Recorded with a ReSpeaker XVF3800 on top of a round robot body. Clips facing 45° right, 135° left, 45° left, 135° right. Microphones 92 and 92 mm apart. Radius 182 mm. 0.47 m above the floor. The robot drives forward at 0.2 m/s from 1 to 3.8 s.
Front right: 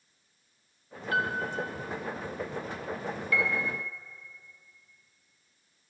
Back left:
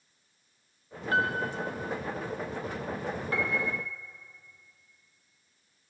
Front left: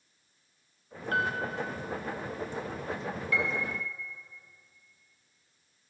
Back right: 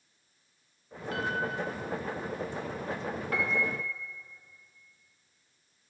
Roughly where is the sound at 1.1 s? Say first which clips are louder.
Back left 2 dB, front left 3 dB; left.